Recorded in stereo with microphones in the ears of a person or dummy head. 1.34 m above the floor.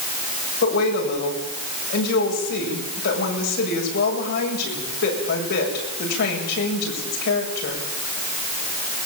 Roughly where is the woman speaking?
Left.